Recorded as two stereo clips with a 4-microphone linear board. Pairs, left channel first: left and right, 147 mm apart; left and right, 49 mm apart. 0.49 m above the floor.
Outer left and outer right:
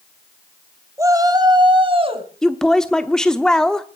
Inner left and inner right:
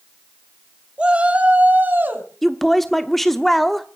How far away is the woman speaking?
About 0.8 m.